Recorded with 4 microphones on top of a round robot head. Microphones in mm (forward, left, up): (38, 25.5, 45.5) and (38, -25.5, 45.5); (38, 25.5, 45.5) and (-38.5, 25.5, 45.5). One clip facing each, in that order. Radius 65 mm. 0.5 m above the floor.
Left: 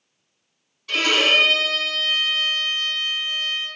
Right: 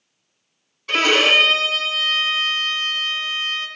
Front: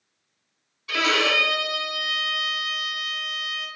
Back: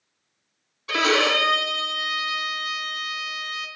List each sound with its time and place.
0.9 s a violin: 135° right, 0.8 m